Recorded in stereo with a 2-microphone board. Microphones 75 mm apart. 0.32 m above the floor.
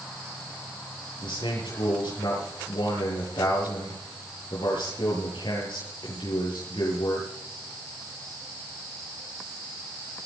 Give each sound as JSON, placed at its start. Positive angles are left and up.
{"t": 1.2, "sound": "a man speaking", "side_deg": 80, "distance_m": 7.5}